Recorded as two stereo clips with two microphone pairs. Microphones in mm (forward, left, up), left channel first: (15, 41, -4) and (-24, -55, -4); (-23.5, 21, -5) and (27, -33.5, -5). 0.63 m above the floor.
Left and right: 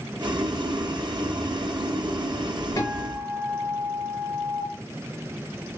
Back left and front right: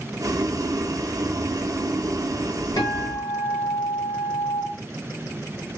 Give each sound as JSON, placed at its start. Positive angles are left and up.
{"t": 0.2, "sound": "boiling", "azimuth_deg": -75, "distance_m": 0.6}
{"t": 2.8, "sound": "a guitar", "azimuth_deg": 120, "distance_m": 1.8}